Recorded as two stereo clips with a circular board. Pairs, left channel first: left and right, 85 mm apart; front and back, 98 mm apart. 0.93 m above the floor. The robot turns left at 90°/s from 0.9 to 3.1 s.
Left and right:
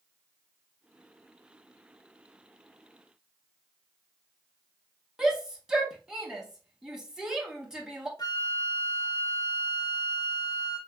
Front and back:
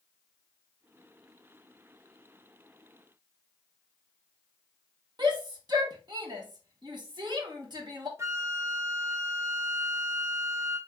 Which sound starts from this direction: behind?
A shout, at 5.2 s.